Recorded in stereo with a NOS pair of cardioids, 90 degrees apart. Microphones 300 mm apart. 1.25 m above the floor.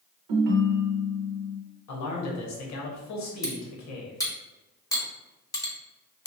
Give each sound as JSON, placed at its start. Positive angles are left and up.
{"t": 0.3, "sound": "a ringtone", "azimuth_deg": -70, "distance_m": 0.7}
{"t": 1.9, "sound": "a man speaking", "azimuth_deg": 65, "distance_m": 1.0}
{"t": 3.4, "sound": "cutlery clinking", "azimuth_deg": 10, "distance_m": 0.8}